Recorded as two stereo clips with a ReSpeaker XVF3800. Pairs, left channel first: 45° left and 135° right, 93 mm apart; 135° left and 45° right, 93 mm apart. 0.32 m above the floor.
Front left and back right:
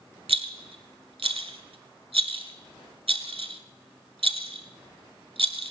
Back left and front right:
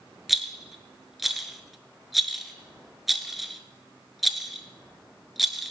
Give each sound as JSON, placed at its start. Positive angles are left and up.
{"t": 0.3, "sound": "a rattle", "azimuth_deg": -135, "distance_m": 1.0}